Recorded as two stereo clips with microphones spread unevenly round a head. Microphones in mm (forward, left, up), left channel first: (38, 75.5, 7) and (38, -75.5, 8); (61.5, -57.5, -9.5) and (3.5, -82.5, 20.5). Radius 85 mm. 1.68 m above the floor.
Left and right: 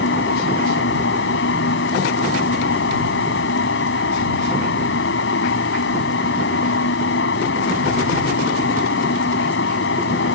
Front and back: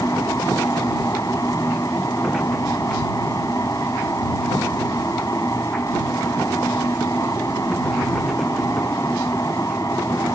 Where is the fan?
100° left.